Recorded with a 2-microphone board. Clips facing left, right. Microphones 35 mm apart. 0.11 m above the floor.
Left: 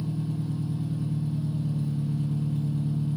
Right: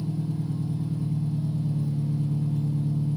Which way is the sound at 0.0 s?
55° left (ahead or behind).